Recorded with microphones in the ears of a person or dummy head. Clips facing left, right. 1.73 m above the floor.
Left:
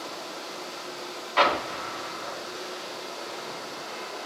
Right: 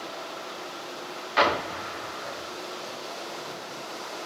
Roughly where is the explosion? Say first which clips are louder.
Even; centre.